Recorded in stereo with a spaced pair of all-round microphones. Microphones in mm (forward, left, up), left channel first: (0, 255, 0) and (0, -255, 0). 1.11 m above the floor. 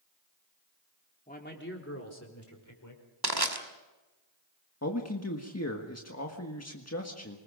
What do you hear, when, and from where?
1.3 s a man speaking: 15° left (ahead or behind), 3 m; by 3.0 s 40° left (ahead or behind), 5 m
3.2 s crushing: 45° right (ahead or behind), 2 m
4.8 s a man speaking: 30° left (ahead or behind), 1.7 m